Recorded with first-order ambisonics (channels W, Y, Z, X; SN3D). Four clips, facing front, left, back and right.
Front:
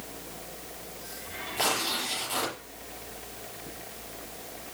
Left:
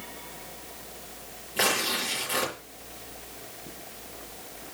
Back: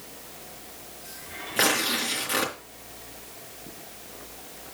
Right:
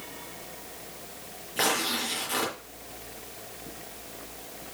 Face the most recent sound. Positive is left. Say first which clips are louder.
# left 1 dB, back 5 dB
turn(degrees=180)